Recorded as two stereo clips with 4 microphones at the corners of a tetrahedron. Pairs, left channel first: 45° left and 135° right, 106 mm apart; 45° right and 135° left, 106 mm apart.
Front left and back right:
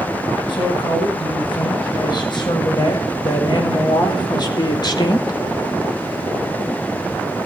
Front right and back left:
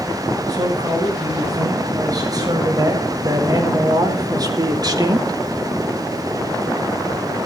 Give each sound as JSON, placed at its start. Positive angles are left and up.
{"t": 0.5, "sound": "a man speaking", "azimuth_deg": 85, "distance_m": 10.0}